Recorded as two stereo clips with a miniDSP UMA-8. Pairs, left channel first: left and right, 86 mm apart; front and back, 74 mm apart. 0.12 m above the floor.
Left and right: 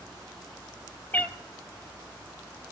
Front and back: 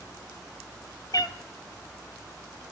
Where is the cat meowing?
20° left, 0.8 m.